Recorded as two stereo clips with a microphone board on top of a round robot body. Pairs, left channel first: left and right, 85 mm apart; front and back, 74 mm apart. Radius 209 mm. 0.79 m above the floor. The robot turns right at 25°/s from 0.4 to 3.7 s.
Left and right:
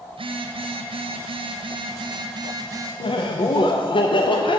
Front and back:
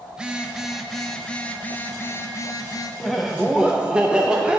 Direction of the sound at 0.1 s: 100° right.